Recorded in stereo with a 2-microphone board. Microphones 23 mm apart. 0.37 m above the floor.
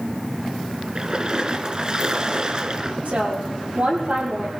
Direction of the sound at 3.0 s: 80° right.